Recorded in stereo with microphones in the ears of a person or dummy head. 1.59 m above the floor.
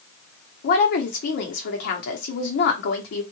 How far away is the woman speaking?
About 1.0 m.